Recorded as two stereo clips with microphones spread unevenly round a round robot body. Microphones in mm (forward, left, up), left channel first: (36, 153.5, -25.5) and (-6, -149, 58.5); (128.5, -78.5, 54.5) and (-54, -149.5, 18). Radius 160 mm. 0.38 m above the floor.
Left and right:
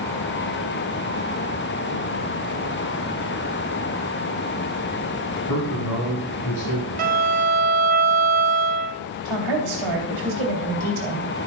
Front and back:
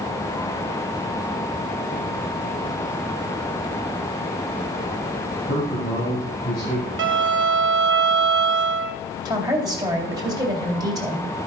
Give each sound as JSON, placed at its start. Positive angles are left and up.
{"t": 5.5, "sound": "a man speaking", "azimuth_deg": 65, "distance_m": 3.5}
{"t": 7.0, "sound": "a violin", "azimuth_deg": -165, "distance_m": 0.8}
{"t": 9.2, "sound": "a woman speaking", "azimuth_deg": -95, "distance_m": 3.0}